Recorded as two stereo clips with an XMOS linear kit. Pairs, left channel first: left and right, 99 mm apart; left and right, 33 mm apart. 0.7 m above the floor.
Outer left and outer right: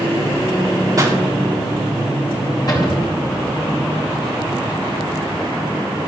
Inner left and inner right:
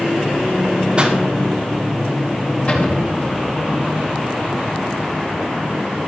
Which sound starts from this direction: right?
A pop, at 1.0 s.